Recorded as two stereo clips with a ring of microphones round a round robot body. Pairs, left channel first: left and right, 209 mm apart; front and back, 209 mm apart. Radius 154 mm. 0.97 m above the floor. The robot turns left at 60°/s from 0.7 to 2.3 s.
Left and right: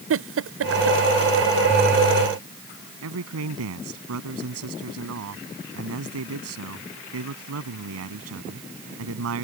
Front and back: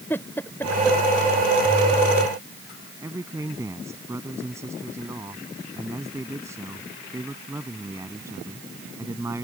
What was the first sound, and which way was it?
A giggle, 85° right.